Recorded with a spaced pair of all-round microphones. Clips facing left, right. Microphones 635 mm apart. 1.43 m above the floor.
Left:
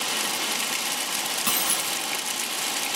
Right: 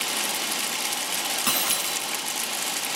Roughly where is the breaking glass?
Centre.